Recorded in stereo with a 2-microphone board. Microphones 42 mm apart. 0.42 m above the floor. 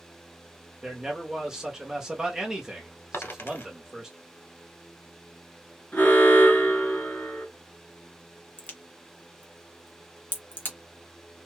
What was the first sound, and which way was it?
A man speaking, 15° right (ahead or behind).